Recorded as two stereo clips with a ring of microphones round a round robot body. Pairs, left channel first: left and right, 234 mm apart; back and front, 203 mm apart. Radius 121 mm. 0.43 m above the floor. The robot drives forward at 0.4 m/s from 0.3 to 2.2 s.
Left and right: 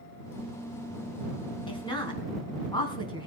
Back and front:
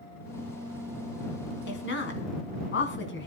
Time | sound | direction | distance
1.7 | a woman speaking | 160° left | 3.5 m